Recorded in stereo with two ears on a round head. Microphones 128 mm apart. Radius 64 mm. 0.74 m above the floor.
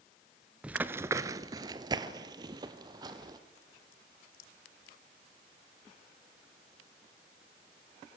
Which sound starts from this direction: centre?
Running footsteps, at 0.6 s.